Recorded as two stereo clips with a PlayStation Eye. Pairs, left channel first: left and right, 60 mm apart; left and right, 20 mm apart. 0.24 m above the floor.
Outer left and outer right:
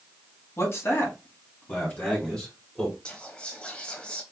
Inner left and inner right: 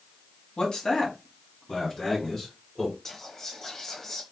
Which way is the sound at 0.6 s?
45° left (ahead or behind).